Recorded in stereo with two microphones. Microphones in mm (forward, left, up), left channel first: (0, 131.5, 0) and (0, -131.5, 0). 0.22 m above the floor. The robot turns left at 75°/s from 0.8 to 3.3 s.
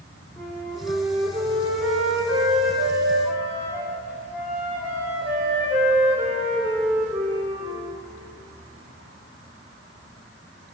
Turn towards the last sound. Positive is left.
turn(degrees=-175)